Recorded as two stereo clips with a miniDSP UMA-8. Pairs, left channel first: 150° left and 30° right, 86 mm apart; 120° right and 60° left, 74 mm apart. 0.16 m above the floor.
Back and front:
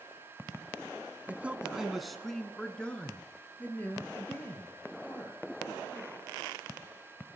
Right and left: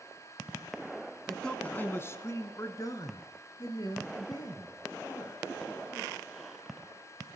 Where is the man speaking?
45° right, 1.1 m; by 6.3 s 145° right, 5 m.